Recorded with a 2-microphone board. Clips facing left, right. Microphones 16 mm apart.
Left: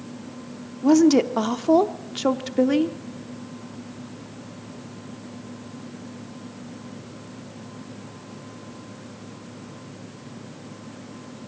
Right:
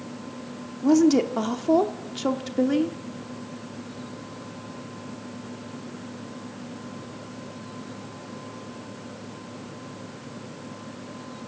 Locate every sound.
0.8 s a woman speaking: 15° left (ahead or behind), 0.9 m